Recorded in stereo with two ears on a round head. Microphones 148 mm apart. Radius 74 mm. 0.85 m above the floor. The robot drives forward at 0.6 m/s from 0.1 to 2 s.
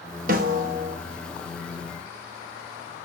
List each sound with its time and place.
0.3 s a snare drum: 55° right (ahead or behind), 0.6 m; by 1.0 s 50° right (ahead or behind), 0.6 m